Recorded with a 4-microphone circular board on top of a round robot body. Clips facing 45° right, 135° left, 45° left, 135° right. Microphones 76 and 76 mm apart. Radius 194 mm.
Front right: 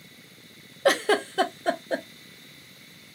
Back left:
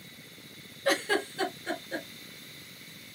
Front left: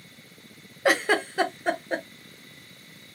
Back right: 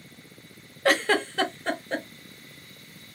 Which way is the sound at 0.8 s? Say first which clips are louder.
Front right 6 dB, even; 30° right.